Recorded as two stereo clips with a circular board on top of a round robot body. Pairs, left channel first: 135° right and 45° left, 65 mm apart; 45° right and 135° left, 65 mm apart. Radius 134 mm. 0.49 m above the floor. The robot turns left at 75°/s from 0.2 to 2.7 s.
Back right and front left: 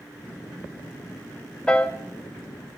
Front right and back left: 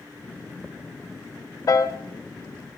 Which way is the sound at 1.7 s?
60° right.